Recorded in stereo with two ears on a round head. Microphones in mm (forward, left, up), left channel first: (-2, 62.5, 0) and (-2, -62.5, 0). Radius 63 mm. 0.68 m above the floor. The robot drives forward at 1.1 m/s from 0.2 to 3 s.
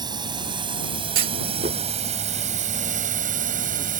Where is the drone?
30° right (ahead or behind); by 4.0 s 65° right (ahead or behind).